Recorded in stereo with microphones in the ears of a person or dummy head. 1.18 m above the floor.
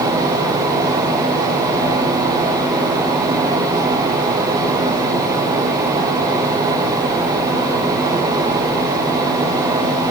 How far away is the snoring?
No snoring in this recording.